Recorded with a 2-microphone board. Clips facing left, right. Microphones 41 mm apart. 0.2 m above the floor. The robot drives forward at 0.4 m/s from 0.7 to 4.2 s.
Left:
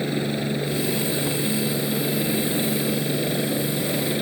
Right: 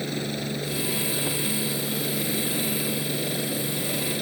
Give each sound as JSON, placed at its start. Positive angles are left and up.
{"t": 0.0, "sound": "a helicopter", "side_deg": 15}